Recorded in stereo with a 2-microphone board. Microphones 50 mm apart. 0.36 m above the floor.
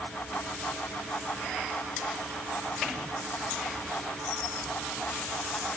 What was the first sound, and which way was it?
Only background noise.